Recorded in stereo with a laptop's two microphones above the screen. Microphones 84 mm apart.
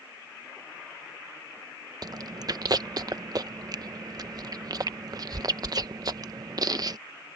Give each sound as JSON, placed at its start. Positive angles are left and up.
{"t": 2.0, "sound": "chewing", "side_deg": -50}